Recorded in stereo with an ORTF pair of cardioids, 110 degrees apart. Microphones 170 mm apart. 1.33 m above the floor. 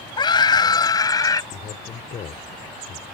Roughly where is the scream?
Ahead left.